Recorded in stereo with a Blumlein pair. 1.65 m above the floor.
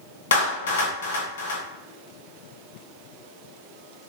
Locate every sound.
0.3 s a clap: 65° left, 0.7 m